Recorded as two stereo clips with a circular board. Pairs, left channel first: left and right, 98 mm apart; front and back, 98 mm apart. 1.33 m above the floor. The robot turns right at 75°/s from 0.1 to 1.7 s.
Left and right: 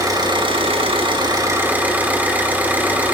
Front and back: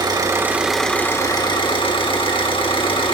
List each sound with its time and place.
0.0 s an engine running: 140° right, 1.7 m; by 3.1 s 20° right, 1.7 m